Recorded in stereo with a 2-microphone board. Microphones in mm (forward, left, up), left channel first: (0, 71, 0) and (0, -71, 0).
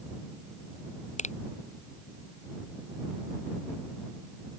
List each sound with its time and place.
1.2 s a finger snap: 55° left (ahead or behind)